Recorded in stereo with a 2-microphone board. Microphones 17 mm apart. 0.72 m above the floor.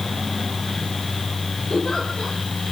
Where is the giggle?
75° left (ahead or behind), 7 m.